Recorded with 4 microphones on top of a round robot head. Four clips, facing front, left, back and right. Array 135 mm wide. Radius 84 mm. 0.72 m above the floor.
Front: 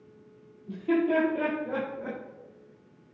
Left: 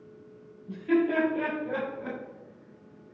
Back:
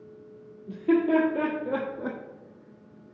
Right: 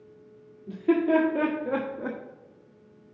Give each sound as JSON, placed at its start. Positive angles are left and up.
{"t": 0.7, "sound": "laughter", "azimuth_deg": -95, "distance_m": 2.0}